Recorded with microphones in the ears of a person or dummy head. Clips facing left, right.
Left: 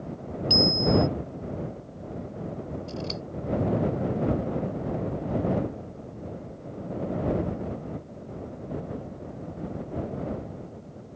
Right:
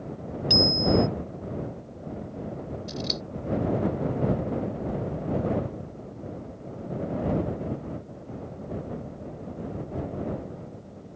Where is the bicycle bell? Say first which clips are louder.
Even; 25° right (ahead or behind).